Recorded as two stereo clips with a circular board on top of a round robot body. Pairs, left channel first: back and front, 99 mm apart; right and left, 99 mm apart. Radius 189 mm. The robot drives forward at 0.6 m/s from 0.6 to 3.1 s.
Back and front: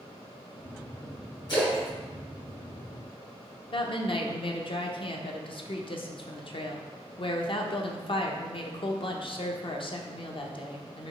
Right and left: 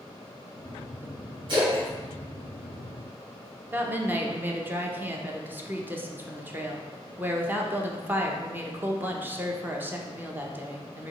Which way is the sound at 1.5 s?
130° left.